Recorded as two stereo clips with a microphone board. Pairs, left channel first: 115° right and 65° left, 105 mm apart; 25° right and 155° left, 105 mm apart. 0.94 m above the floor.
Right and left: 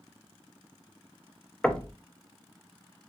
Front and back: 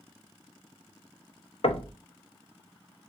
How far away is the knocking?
About 0.5 m.